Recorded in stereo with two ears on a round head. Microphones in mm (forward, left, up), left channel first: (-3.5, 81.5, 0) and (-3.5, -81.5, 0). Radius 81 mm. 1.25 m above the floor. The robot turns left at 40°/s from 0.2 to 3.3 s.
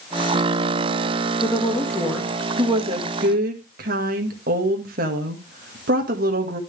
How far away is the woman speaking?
About 1.8 m.